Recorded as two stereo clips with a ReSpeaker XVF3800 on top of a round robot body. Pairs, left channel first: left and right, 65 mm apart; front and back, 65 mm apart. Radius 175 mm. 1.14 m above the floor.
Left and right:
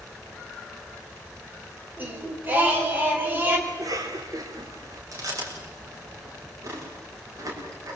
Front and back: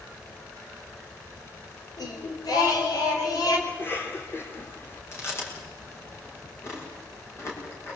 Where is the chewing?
50° right, 7 m.